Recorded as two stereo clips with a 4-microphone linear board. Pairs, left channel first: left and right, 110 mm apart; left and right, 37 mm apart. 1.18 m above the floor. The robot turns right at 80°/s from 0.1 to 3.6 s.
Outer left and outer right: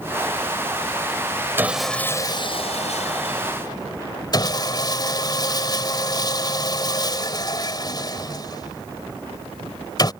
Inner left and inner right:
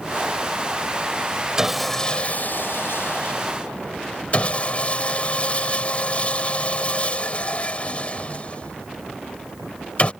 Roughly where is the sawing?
Ahead.